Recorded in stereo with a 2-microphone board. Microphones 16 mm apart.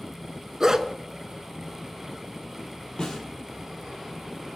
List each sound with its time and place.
0.6 s a dog barking: 30° right (ahead or behind), 0.6 m
3.0 s a snare drum: 50° left (ahead or behind), 2.5 m